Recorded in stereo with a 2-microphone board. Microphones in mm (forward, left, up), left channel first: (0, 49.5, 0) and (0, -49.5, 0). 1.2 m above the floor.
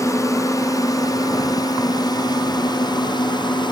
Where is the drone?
30° left (ahead or behind); by 3.7 s 50° left (ahead or behind).